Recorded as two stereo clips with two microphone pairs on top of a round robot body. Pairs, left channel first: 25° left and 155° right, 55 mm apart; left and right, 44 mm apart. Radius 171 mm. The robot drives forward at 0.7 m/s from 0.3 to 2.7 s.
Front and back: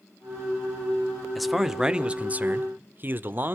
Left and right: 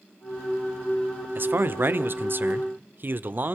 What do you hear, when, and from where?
1.4 s a man speaking: 65° right, 1.4 m; by 3.5 s 120° right, 1.4 m